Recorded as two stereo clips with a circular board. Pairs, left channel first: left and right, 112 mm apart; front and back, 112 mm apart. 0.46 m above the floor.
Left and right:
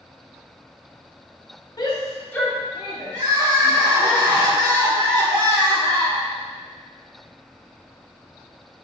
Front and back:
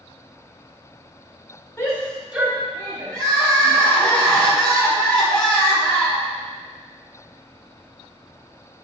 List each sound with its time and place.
1.8 s a shout: 55° left, 1.2 m; by 4.1 s 150° right, 2.5 m
3.1 s crying: 80° right, 1.3 m